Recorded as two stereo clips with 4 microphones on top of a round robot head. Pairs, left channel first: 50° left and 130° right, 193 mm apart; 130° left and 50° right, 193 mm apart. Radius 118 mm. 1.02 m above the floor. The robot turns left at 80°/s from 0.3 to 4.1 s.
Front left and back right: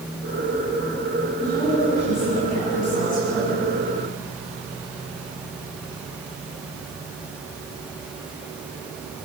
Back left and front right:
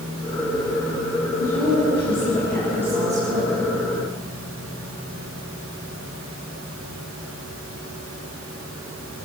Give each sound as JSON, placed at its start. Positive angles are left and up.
{"t": 1.4, "sound": "a woman speaking", "azimuth_deg": 140, "distance_m": 8.5}